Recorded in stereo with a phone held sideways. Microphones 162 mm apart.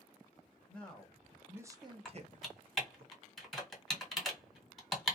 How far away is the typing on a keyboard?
About 1.2 m.